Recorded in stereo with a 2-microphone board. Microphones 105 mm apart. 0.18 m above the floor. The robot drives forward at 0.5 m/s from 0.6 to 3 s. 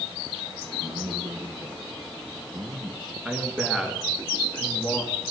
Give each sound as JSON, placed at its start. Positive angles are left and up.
{"t": 0.8, "sound": "a man speaking", "side_deg": -55, "distance_m": 2.5}
{"t": 3.2, "sound": "a man speaking", "side_deg": -5, "distance_m": 2.5}